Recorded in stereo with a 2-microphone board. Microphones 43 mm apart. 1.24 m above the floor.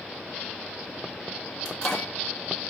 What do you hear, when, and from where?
1.6 s a microwave: 15° left (ahead or behind), 1.6 m